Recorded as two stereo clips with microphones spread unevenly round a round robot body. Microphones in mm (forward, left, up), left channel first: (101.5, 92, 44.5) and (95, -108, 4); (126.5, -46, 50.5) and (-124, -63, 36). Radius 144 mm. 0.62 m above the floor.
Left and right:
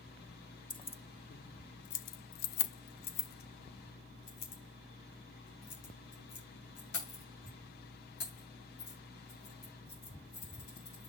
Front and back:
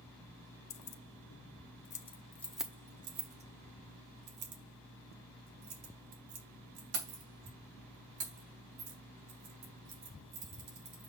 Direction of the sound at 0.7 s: 15° left.